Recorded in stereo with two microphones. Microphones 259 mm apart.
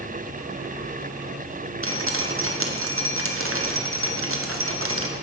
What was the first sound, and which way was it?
Dripping, 60° right (ahead or behind).